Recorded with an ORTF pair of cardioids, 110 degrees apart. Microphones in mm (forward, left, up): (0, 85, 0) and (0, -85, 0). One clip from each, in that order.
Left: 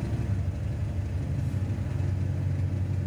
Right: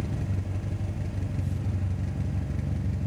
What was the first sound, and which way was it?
An engine running, 35° right.